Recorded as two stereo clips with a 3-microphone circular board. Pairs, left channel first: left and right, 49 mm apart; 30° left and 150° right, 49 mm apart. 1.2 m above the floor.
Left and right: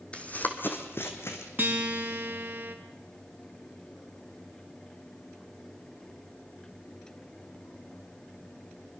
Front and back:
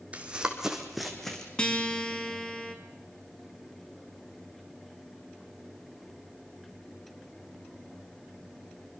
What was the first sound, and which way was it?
Running footsteps, 150° left.